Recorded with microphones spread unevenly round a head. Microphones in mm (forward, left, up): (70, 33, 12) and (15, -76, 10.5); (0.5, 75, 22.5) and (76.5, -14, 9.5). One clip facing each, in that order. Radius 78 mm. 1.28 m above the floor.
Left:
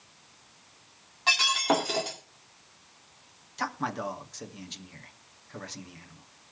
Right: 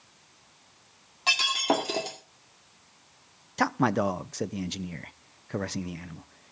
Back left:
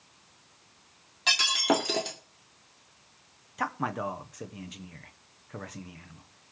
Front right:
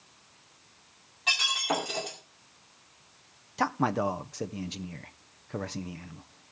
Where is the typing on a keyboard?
No typing on a keyboard in this recording.